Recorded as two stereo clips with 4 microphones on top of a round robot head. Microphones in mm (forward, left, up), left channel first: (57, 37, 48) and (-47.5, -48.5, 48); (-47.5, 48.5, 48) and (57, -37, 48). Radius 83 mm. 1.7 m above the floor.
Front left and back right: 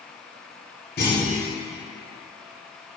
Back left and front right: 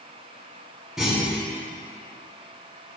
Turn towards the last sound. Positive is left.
turn(degrees=50)